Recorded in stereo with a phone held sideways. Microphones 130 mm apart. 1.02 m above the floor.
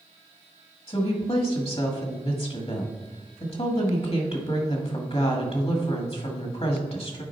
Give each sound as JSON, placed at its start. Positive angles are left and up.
{"t": 0.9, "sound": "a woman speaking", "side_deg": 50, "distance_m": 1.5}